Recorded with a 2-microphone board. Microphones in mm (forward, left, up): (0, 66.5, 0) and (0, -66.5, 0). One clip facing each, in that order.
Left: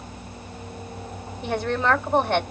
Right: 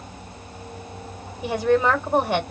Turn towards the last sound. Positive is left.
turn(degrees=-10)  # may be behind; listen again after turning